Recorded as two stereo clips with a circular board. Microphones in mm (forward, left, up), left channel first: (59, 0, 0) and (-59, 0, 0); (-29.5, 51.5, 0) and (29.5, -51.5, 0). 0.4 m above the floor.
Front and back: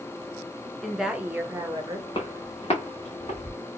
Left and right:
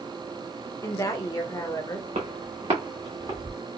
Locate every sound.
0.8 s a woman speaking: 80° left, 1.0 m; by 2.0 s 165° left, 1.2 m
2.1 s footsteps: 45° right, 1.9 m; by 3.6 s 20° right, 1.9 m